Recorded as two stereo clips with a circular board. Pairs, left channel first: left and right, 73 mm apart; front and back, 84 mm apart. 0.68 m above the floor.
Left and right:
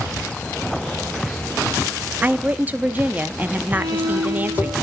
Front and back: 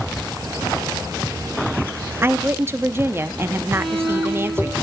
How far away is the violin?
About 4 m.